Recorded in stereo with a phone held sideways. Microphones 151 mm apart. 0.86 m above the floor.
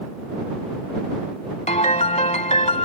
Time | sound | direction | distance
1.7 | a piano | 50° left (ahead or behind) | ?